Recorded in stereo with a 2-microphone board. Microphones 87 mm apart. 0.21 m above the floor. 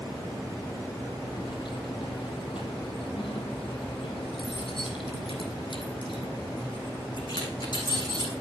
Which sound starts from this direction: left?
Keys jangling, at 1.3 s.